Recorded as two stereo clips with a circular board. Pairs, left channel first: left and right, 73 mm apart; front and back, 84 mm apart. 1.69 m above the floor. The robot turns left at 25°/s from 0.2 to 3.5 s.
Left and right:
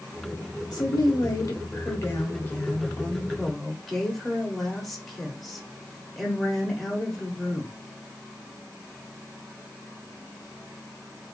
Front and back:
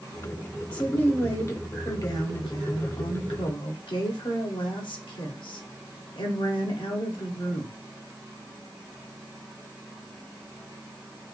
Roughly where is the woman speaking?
Left.